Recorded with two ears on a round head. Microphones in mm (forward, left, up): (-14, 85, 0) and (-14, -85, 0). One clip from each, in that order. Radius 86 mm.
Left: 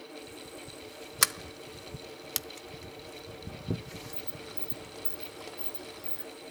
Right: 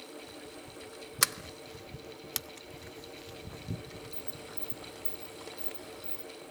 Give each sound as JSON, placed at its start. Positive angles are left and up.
{"t": 1.2, "sound": "a sliding door", "side_deg": 5, "distance_m": 0.7}